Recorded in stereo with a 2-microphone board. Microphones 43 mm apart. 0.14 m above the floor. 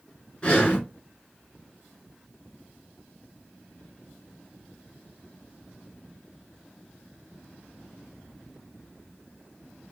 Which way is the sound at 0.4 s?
20° left (ahead or behind).